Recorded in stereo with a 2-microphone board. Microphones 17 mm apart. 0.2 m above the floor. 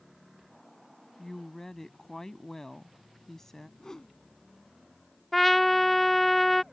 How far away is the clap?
No clap in this recording.